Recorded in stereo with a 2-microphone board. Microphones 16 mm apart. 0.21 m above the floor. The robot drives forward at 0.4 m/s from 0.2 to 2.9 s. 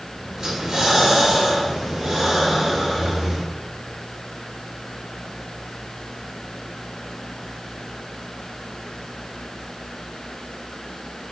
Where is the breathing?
50° right (ahead or behind), 1.2 m; by 3.4 s 30° right (ahead or behind), 1.8 m.